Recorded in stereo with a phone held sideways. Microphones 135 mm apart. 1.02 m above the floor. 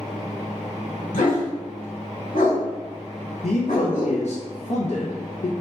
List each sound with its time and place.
0.0 s a fan: 20° right (ahead or behind), 1.4 m
1.1 s a dog barking: 75° left (ahead or behind), 1.4 m
3.4 s a man speaking: 60° left (ahead or behind), 0.5 m